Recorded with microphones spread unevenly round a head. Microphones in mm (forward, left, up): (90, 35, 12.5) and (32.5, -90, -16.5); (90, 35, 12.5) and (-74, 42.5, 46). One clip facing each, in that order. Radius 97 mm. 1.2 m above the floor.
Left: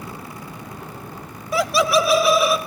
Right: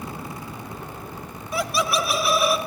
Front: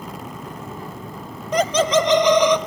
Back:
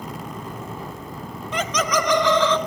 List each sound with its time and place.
1.5 s laughter: 45° left, 0.6 m; by 2.6 s 70° left, 1.4 m